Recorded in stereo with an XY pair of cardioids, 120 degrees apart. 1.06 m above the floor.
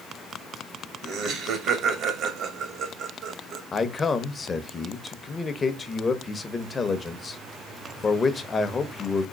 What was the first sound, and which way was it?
Laughter, 65° right.